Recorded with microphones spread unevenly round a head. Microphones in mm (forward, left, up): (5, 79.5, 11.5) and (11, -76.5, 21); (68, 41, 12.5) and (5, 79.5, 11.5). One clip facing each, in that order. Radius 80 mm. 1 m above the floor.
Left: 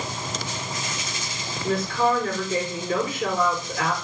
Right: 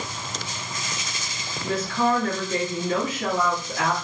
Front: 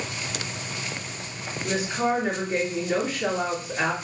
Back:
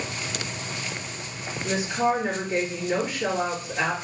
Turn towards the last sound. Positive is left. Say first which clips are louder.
# left 1 dB, back 1 dB
turn(degrees=-135)